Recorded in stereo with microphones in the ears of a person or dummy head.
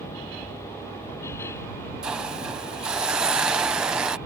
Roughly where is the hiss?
Centre.